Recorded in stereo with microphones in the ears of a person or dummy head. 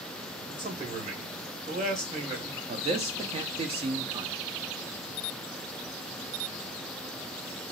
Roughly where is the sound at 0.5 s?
Right.